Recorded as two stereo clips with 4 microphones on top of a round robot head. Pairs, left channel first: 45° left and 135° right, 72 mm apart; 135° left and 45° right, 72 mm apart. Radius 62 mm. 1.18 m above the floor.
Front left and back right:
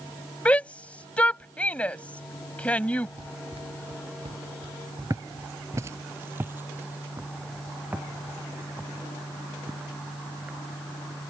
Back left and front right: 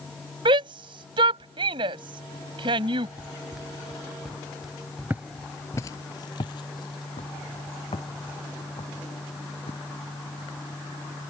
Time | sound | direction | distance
0.5 | a shout | 30° right | ?
3.2 | running footsteps | 125° right | ?
5.1 | footsteps | 95° right | ?